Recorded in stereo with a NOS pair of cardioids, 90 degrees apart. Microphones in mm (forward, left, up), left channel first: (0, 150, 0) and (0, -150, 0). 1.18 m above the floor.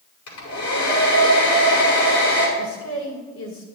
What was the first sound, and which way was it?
A hair dryer, 70° left.